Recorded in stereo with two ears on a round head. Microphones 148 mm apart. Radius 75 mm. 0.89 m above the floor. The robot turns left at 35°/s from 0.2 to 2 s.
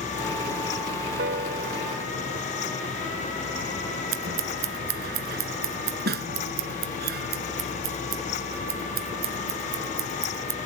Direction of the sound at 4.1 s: 70° right (ahead or behind).